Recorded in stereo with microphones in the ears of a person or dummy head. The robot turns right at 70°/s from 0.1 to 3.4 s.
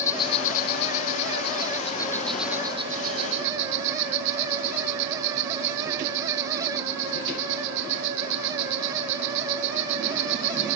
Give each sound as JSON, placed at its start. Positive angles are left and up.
{"t": 0.0, "sound": "an insect", "azimuth_deg": 15}